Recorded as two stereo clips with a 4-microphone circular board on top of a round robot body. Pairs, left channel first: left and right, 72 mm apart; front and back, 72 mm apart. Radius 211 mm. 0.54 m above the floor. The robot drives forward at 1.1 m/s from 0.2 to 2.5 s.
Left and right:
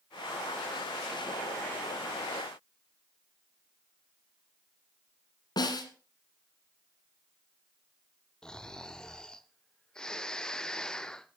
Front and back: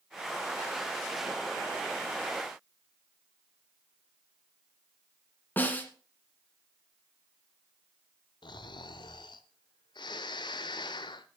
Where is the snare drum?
65° left, 1.5 m.